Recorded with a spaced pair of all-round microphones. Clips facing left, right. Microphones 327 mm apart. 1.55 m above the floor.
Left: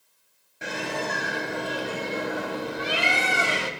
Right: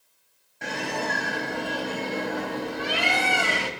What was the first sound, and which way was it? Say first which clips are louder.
A bird: even; 10° left (ahead or behind).